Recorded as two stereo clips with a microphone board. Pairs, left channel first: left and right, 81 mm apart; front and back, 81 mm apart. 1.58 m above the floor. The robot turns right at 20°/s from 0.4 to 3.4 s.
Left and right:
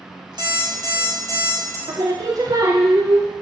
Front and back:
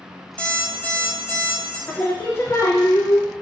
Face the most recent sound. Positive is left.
turn(degrees=-35)